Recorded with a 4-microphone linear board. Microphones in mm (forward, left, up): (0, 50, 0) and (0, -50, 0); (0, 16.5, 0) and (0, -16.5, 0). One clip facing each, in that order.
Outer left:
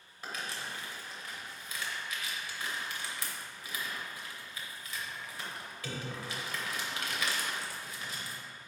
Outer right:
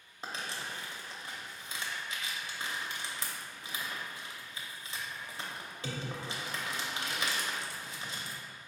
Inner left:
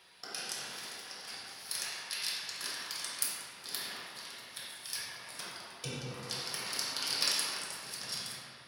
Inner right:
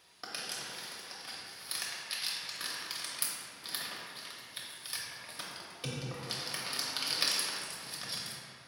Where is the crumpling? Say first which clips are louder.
Even, inner right 1 dB; 25° right (ahead or behind), 0.7 m.